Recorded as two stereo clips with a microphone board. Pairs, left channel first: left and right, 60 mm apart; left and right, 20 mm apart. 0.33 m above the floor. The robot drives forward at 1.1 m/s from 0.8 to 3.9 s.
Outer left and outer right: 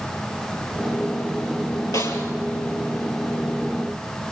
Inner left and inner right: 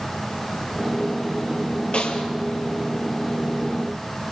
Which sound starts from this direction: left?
A snare drum, at 1.9 s.